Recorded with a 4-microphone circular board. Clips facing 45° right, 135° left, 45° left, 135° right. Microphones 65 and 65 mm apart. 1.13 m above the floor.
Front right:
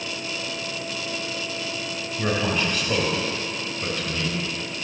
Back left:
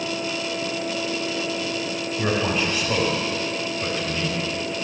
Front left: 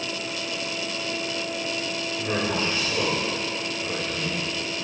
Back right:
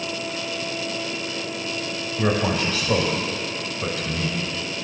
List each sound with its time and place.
2.2 s a man speaking: 135° right, 6 m